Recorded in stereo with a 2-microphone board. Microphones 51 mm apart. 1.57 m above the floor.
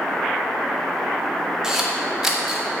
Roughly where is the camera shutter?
Centre.